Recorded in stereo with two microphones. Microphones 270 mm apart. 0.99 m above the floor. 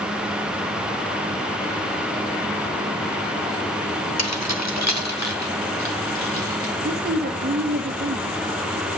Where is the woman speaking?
35° right (ahead or behind), 1.0 m.